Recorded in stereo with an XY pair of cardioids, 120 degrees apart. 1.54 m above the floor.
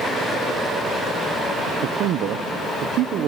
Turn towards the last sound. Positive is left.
turn(degrees=-70)